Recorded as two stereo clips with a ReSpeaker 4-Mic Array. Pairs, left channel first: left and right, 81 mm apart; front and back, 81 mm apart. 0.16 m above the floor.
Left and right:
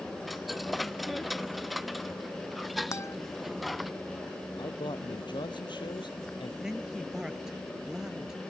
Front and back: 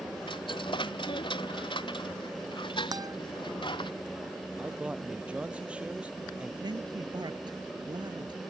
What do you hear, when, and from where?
0.3 s a dropped coin: straight ahead
2.9 s a guitar: 145° left
4.6 s a man speaking: 105° left
6.6 s a man speaking: 175° right